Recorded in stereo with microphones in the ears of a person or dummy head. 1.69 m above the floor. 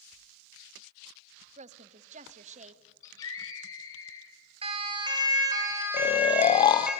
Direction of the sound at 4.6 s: 35° right (ahead or behind).